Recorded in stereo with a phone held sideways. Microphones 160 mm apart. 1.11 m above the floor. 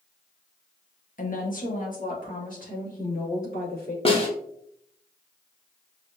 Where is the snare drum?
35° left (ahead or behind), 0.9 m.